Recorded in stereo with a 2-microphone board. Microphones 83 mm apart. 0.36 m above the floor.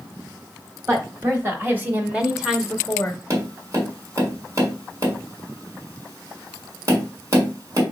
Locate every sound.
0.9 s a woman speaking: 35° right (ahead or behind), 1.6 m; by 3.2 s 20° left (ahead or behind), 0.9 m
3.3 s tapping: 45° right (ahead or behind), 2 m